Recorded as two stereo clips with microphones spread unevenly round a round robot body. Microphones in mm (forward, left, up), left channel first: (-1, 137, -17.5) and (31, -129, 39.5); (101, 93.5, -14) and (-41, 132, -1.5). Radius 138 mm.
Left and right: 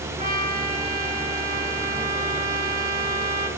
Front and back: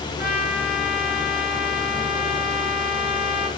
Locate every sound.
0.2 s a trumpet: 20° right, 1.8 m